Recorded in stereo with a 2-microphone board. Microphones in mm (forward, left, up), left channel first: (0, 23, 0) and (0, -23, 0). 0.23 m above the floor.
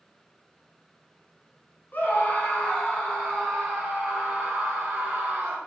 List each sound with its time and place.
1.9 s a scream: 40° left (ahead or behind), 2.5 m; by 5.6 s 20° right (ahead or behind), 4.5 m